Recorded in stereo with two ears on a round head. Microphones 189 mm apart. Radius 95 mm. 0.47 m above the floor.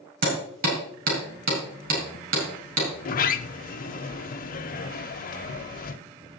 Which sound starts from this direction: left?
A sliding door, at 3.0 s.